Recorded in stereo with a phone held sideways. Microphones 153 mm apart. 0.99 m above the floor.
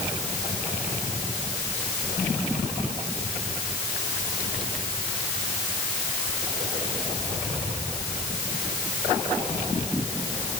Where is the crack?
No crack in this recording.